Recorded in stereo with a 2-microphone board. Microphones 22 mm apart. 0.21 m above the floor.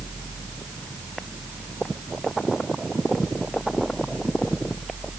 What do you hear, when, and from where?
Only background noise.